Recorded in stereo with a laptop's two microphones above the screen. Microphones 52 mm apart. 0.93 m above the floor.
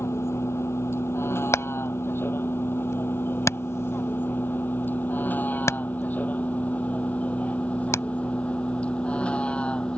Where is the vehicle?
55° left (ahead or behind); by 10.0 s 20° left (ahead or behind).